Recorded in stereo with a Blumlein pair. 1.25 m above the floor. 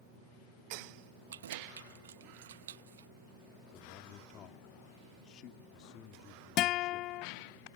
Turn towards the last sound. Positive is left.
turn(degrees=35)